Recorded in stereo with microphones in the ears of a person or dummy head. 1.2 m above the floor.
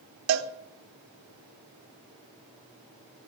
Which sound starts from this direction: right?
A cowbell, at 0.3 s.